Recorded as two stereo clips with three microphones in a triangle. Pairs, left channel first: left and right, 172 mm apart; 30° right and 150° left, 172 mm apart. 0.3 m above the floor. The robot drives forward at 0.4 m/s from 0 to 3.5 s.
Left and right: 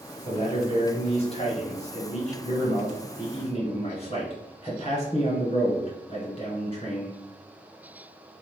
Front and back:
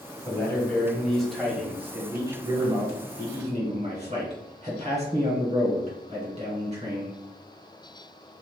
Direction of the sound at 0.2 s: 40° left.